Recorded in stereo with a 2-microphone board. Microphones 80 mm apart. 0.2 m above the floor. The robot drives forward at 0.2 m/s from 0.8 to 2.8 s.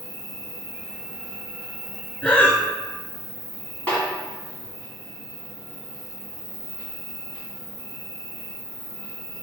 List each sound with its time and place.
0.0 s an insect: 35° left (ahead or behind), 1.8 m; by 9.4 s 30° left (ahead or behind), 2 m
2.2 s breathing: 15° left (ahead or behind), 0.6 m; by 2.6 s 20° left (ahead or behind), 0.5 m
3.9 s a snare drum: 15° left (ahead or behind), 1.9 m